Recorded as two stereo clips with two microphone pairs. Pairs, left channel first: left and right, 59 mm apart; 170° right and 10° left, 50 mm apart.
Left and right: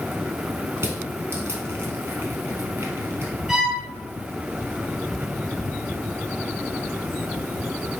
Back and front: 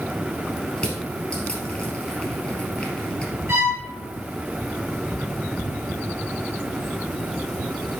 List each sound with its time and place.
0.8 s crushing: 100° right, 3 m
3.5 s a violin: 10° right, 2 m